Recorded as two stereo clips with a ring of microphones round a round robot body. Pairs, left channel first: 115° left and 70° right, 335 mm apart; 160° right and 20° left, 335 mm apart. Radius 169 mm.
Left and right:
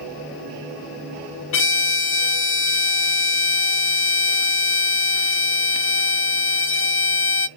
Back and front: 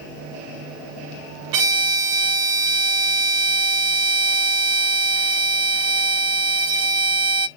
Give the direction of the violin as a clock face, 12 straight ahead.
10 o'clock.